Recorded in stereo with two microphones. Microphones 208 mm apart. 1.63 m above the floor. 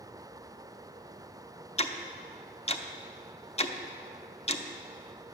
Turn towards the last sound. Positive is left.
turn(degrees=30)  # may be behind; listen again after turning